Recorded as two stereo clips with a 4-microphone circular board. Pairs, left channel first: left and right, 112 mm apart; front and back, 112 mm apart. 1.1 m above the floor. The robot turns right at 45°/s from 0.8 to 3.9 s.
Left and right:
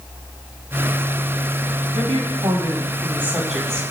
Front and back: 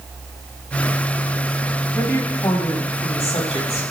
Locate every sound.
1.9 s a woman speaking: 75° right, 5 m; by 3.8 s 10° left, 5 m